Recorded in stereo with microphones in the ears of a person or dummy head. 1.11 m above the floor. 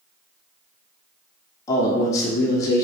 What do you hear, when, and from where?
1.7 s a man speaking: 20° left (ahead or behind), 0.8 m